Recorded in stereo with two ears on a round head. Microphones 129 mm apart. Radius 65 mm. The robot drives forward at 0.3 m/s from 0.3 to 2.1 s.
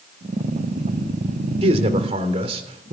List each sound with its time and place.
1.6 s a man speaking: 45° right (ahead or behind), 3 m; by 2.9 s 40° right (ahead or behind), 3 m